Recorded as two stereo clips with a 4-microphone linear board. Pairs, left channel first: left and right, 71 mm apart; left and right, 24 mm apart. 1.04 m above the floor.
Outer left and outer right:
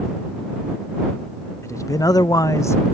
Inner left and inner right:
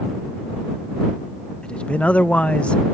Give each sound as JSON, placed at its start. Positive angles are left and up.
{"t": 1.6, "sound": "a man speaking", "side_deg": 40}